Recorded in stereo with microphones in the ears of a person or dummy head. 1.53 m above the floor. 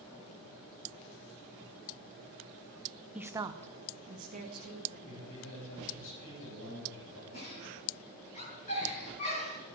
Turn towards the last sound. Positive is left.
turn(degrees=40)  # may be behind; listen again after turning